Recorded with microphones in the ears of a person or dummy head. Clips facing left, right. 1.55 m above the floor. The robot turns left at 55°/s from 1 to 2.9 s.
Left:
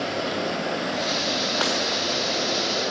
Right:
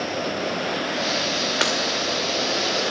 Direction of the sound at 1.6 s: 25° right (ahead or behind).